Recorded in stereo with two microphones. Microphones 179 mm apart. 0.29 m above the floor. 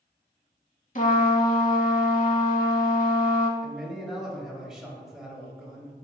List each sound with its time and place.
0.9 s a trumpet: 50° left (ahead or behind), 0.5 m
3.6 s a man speaking: 5° right (ahead or behind), 1.0 m